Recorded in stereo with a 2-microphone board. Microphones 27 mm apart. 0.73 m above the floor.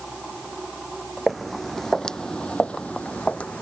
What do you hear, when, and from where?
1.3 s footsteps: centre (ahead or behind); by 3.6 s 55° left (ahead or behind)